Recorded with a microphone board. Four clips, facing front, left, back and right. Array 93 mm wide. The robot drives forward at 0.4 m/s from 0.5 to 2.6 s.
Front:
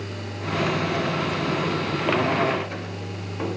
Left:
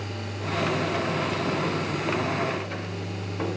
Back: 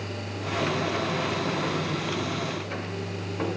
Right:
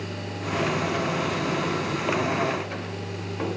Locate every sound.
Only background noise.